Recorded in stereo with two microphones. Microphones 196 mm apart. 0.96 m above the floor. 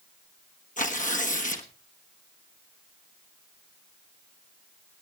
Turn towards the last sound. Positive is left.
turn(degrees=40)  # may be behind; listen again after turning